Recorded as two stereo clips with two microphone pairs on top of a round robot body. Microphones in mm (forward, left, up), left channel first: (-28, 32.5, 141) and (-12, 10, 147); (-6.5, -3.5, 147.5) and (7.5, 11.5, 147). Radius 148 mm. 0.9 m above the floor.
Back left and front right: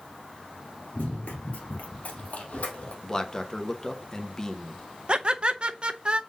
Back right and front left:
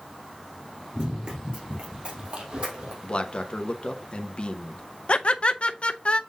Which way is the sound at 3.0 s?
170° right.